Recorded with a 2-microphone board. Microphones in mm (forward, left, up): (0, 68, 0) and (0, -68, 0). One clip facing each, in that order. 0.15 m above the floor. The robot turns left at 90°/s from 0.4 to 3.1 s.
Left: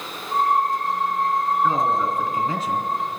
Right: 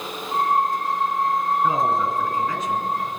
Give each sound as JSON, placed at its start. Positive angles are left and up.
{"t": 1.6, "sound": "a man speaking", "azimuth_deg": -155, "distance_m": 1.5}